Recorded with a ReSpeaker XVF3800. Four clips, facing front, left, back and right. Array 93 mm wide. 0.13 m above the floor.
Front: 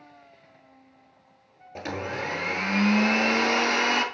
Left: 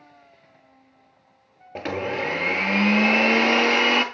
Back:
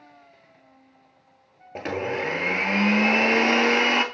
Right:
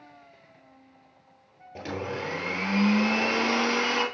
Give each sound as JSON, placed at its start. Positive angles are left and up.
{"t": 1.8, "sound": "a blender", "azimuth_deg": 125, "distance_m": 1.5}